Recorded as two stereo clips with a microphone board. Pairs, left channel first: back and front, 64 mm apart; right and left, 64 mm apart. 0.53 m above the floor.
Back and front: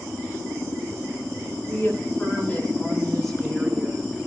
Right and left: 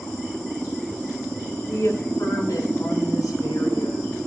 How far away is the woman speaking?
About 4.5 m.